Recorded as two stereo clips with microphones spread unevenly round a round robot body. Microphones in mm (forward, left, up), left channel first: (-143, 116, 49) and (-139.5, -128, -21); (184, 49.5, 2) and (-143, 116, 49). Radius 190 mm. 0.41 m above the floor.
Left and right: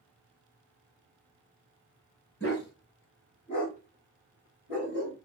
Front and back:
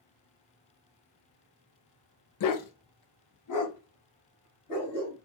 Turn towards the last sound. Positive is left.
turn(degrees=15)